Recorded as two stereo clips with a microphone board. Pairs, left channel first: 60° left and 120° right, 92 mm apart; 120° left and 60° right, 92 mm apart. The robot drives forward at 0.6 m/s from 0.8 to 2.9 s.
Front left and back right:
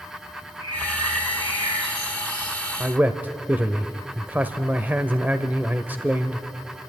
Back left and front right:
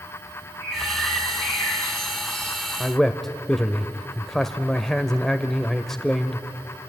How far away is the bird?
About 9.5 m.